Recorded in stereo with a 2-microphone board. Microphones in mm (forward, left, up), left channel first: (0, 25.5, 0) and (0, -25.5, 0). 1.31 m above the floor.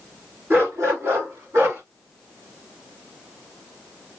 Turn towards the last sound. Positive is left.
turn(degrees=-70)  # may be behind; listen again after turning